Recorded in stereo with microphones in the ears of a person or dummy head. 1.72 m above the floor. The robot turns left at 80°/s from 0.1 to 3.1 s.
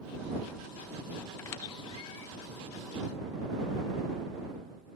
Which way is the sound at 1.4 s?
15° left (ahead or behind).